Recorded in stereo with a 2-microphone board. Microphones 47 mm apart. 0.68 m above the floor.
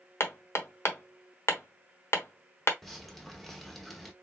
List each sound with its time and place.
0.2 s hammering: 65° left (ahead or behind), 1.0 m
2.8 s dripping: centre (ahead or behind), 1.0 m